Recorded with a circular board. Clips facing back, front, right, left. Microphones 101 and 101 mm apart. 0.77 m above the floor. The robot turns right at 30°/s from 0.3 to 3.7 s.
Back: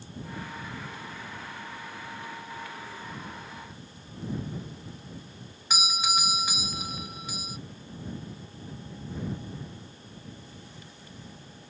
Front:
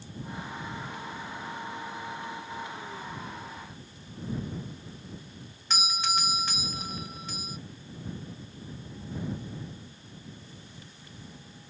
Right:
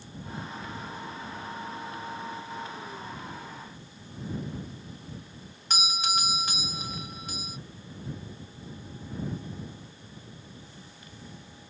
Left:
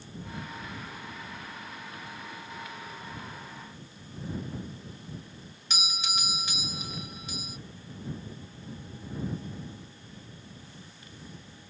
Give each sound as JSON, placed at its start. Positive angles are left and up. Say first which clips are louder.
{"t": 5.7, "sound": "a doorbell", "louder": "back 1 dB, right 6 dB", "azimuth_deg": -105}